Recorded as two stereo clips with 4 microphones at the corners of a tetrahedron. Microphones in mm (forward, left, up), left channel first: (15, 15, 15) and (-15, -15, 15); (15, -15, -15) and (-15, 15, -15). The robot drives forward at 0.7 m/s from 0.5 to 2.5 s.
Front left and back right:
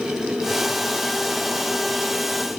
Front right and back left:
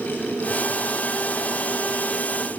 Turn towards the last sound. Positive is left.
No sound to turn to.